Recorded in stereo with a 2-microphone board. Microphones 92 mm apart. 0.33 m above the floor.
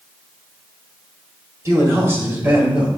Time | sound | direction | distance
1.6 | a man speaking | 35° right (ahead or behind) | 1.4 m